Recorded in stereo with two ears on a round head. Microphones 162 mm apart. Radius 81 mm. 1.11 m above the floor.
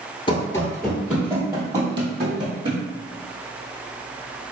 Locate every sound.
0.3 s running footsteps: 30° left (ahead or behind), 1.3 m; by 2.8 s 35° right (ahead or behind), 3.5 m